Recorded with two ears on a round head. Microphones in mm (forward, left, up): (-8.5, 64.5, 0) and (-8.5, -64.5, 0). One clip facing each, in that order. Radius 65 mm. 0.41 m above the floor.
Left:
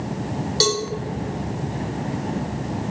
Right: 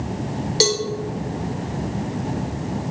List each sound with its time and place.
0.6 s a cowbell: 20° right (ahead or behind), 1.1 m